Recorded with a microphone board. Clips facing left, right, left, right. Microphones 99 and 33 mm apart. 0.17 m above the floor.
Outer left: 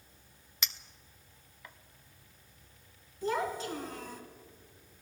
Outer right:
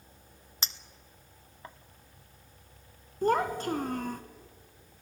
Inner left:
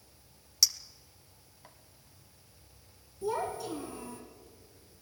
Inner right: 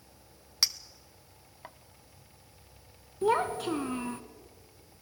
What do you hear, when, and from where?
0.6 s a clink: 35° right (ahead or behind), 0.7 m
3.2 s a child speaking: 50° right (ahead or behind), 1.0 m